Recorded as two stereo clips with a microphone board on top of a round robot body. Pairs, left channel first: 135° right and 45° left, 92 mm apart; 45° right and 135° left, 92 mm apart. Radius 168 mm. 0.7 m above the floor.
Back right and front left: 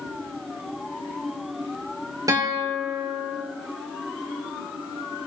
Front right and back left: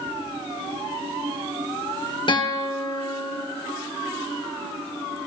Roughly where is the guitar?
Ahead.